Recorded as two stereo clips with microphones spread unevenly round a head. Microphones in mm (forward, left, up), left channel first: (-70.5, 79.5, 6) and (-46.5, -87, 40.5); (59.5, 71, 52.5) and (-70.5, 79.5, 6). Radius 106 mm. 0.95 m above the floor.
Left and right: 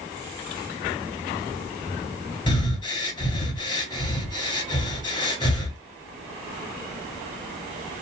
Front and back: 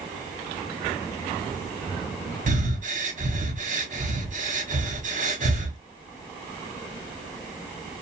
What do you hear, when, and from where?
2.5 s breathing: 160° left, 1.4 m